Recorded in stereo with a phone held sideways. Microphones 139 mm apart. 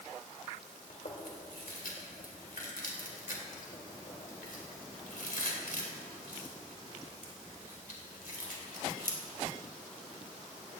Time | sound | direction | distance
0.9 | chewing | 80° left | 3 m